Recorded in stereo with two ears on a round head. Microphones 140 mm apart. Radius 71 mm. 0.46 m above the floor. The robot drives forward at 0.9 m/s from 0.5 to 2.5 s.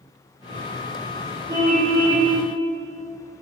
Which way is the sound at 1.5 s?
25° right (ahead or behind).